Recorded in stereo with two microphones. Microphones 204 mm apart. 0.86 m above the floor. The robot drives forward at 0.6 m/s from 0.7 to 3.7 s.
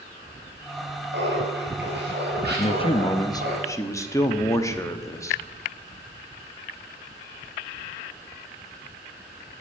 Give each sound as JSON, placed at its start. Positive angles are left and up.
{"t": 1.1, "sound": "laughter", "side_deg": -65, "distance_m": 5.0}
{"t": 2.6, "sound": "a man speaking", "side_deg": 30, "distance_m": 0.5}